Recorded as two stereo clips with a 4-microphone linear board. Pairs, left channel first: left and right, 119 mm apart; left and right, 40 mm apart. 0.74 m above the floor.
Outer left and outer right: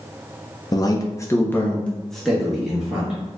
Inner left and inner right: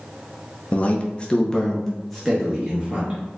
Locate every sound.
0.7 s a man speaking: 35° left (ahead or behind), 0.7 m; by 3.2 s 10° right (ahead or behind), 1.2 m